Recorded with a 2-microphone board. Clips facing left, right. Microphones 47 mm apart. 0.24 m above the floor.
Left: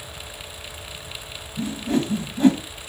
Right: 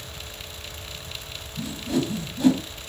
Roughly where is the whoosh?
Left.